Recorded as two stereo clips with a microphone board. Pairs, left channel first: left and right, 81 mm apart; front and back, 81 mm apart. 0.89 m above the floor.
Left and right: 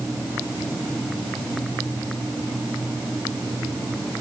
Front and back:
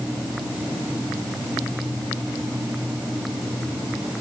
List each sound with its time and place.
Only background noise.